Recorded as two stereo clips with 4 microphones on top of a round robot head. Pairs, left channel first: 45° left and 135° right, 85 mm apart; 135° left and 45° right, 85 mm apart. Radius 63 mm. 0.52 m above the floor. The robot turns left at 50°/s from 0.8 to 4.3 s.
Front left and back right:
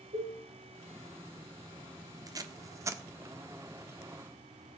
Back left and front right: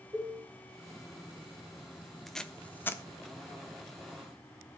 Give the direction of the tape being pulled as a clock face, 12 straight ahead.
5 o'clock.